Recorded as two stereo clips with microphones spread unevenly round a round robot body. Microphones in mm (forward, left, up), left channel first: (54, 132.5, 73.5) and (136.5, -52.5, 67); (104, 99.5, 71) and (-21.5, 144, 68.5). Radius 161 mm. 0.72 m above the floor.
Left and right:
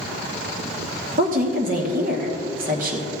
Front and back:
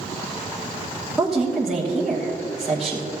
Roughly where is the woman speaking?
Right.